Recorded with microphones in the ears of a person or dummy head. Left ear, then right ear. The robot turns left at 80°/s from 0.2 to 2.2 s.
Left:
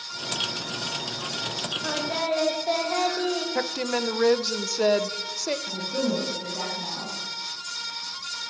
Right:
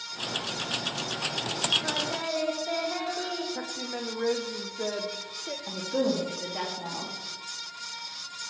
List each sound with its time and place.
1.8 s singing: centre (ahead or behind), 1.6 m; by 3.5 s 30° left (ahead or behind), 1.6 m
3.5 s a woman speaking: 85° left, 0.9 m
5.7 s a woman speaking: 60° right (ahead or behind), 2.5 m